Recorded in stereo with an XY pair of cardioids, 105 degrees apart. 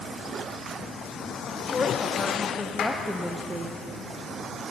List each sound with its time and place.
1.5 s a woman speaking: 35° left, 1.7 m; by 3.8 s 40° right, 0.8 m
2.8 s a clap: 55° left, 2 m